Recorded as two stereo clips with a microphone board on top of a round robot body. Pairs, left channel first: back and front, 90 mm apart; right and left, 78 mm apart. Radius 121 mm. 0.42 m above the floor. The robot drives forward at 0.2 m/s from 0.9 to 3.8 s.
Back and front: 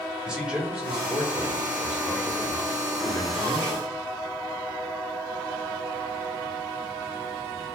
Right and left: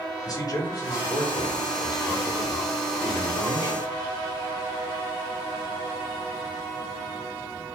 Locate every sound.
0.2 s a man speaking: 75° right, 1.3 m; by 3.8 s 110° right, 1.3 m